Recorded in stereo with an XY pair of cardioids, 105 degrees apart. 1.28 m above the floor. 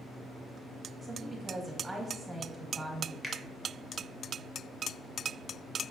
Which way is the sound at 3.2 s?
10° left.